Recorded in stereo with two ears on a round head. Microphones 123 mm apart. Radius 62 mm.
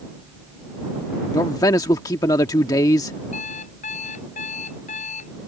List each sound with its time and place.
1.3 s a man speaking: 25° left (ahead or behind)
3.3 s an alarm clock: 50° left (ahead or behind)